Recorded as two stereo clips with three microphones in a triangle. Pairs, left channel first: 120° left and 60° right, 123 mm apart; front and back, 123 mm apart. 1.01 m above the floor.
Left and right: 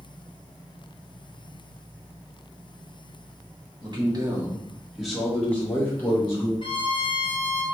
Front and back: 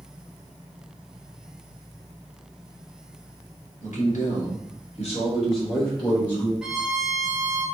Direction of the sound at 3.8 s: 10° right.